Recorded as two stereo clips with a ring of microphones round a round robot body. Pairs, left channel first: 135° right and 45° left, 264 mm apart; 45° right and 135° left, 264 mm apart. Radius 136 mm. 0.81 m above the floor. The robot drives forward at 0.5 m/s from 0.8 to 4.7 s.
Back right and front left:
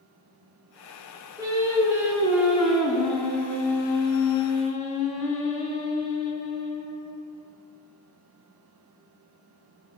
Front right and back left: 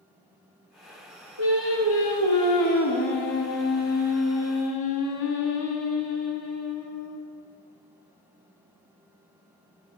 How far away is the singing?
About 2.5 m.